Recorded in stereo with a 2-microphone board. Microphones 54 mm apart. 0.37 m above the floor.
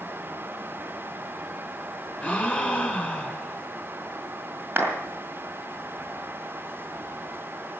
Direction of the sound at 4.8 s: 35° right (ahead or behind).